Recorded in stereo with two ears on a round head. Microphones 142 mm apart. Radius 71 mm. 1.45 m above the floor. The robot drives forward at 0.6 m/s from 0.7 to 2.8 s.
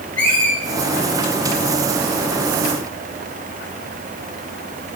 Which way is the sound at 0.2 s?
10° left (ahead or behind).